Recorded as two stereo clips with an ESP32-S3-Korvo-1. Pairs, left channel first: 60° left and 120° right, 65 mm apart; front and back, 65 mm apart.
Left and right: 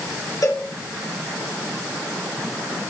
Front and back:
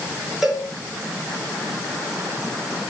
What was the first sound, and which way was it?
A cowbell, 95° left.